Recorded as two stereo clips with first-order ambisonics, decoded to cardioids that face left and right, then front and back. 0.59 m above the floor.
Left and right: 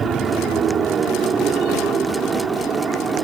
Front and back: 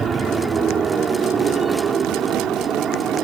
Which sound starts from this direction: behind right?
An aircraft, at 0.0 s.